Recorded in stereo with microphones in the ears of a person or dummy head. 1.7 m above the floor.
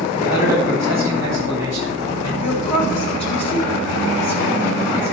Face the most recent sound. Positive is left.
turn(degrees=35)  # may be behind; listen again after turning